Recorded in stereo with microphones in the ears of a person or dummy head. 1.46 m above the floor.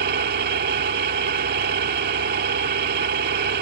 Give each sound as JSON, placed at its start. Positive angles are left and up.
{"t": 0.0, "sound": "an engine running", "side_deg": -55}